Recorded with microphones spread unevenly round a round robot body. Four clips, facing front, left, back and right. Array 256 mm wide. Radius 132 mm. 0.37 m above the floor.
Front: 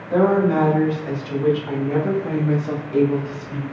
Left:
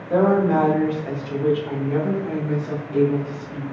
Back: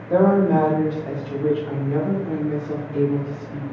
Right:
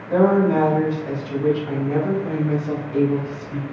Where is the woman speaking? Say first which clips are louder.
Right 1 dB, back 1 dB; 155° left, 1.3 m; by 3.6 s 15° right, 2.5 m.